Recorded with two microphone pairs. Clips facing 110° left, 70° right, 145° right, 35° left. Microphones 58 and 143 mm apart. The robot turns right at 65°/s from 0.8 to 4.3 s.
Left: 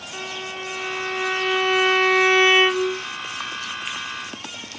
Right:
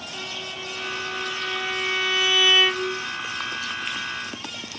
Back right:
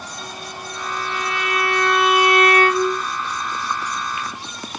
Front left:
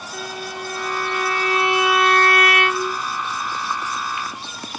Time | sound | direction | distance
0.1 | a violin | 50° left | 0.7 m